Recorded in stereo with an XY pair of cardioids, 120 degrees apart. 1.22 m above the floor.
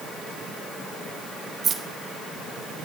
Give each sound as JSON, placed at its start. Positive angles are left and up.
{"t": 1.6, "sound": "keys jangling", "azimuth_deg": -40, "distance_m": 1.3}